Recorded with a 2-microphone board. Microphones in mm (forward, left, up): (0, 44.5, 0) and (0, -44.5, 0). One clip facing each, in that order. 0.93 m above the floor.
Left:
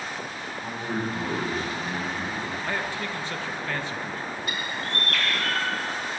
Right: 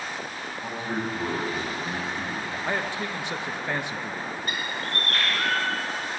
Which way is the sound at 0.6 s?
15° right (ahead or behind).